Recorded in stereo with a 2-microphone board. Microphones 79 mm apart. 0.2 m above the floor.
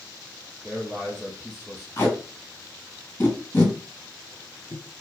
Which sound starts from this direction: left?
Tape being pulled, at 2.0 s.